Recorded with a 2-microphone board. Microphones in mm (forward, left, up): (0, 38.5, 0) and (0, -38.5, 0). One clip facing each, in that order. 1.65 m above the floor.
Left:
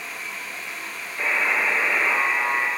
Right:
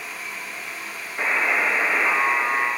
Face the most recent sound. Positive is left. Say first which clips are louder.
# right 1 dB
turn(degrees=-40)  # may be behind; listen again after turning